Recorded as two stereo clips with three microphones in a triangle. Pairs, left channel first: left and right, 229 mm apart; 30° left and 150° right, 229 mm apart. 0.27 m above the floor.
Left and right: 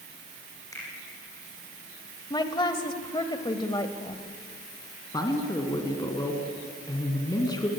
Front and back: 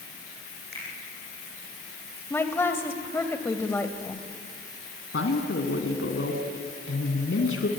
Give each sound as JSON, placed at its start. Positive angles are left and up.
{"t": 0.7, "sound": "a finger snap", "azimuth_deg": 165, "distance_m": 10.0}
{"t": 2.3, "sound": "a woman speaking", "azimuth_deg": 90, "distance_m": 1.4}
{"t": 5.1, "sound": "a man speaking", "azimuth_deg": 20, "distance_m": 2.5}